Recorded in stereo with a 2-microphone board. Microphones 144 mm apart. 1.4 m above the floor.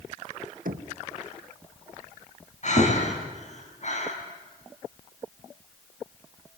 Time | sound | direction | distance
0.7 | knocking | 70° right (ahead or behind) | 1.2 m
2.6 | breathing | 55° left (ahead or behind) | 4 m